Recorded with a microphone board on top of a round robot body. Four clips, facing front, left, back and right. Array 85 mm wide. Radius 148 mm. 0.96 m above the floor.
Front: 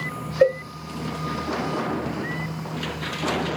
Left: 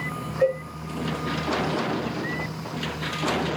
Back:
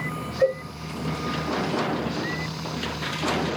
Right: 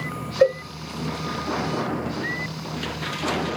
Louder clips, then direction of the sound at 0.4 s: Right 4 dB, front 4 dB; 40° right.